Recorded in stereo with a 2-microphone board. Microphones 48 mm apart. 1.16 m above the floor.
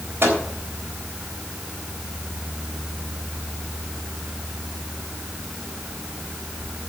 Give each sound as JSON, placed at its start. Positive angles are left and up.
{"t": 0.2, "sound": "a microwave", "side_deg": -50, "distance_m": 3.5}